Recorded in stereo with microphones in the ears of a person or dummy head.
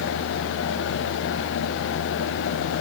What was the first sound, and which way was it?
Only background noise.